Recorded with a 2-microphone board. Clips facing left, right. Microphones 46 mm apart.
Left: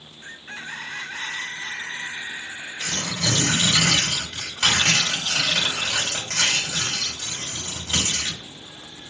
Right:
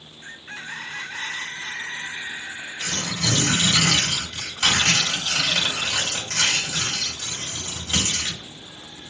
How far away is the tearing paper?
About 2 m.